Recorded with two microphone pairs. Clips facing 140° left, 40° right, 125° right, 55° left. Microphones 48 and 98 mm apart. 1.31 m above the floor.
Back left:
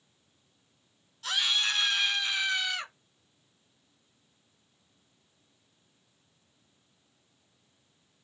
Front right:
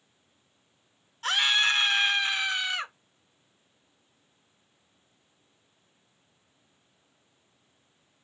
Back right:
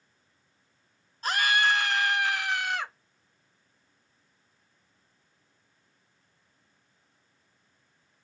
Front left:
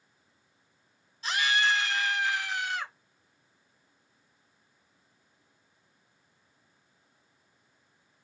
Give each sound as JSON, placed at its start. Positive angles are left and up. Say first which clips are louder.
{"t": 1.2, "sound": "a scream", "louder": "front right 5 dB, back right 2 dB", "azimuth_deg": -85, "distance_m": 1.0}